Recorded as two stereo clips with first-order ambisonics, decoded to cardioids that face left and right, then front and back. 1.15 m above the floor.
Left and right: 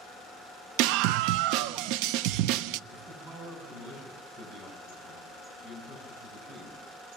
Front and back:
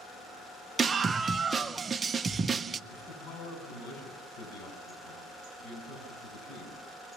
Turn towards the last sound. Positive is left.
turn(degrees=-30)